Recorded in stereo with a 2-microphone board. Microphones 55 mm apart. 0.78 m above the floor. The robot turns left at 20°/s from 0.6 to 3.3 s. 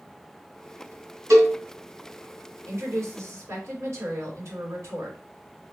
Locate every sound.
1.3 s a cowbell: 75° right (ahead or behind), 2 m; by 1.6 s 80° right, 2 m
2.6 s a woman speaking: 65° right (ahead or behind), 2.5 m; by 5.2 s 60° right (ahead or behind), 2.5 m